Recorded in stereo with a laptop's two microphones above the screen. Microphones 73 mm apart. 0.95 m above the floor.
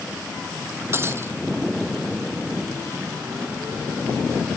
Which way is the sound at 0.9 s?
35° right (ahead or behind).